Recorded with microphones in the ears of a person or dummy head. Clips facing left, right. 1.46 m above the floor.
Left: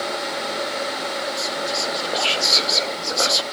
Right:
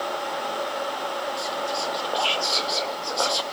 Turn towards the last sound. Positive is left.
turn(degrees=20)  # may be behind; listen again after turning